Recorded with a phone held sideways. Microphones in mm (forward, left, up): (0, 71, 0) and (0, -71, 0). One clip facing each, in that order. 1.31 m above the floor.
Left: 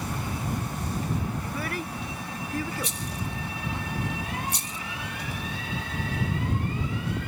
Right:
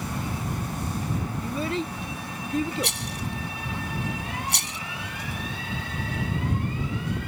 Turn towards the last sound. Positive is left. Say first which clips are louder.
# right 2 dB
turn(degrees=-75)  # may be behind; listen again after turning